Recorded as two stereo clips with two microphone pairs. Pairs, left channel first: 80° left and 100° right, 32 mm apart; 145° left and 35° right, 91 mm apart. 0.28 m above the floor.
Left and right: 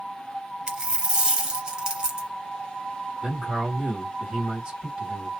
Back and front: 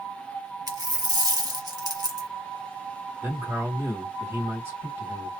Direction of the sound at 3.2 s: 70° right.